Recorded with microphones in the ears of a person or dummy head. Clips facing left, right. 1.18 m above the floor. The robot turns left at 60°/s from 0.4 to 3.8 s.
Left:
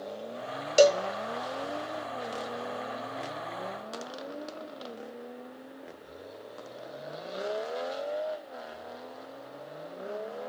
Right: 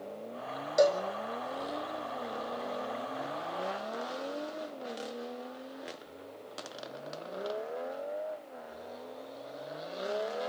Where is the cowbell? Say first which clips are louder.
Left 5 dB; 40° left (ahead or behind), 0.6 m; by 1.0 s 35° left (ahead or behind), 0.6 m.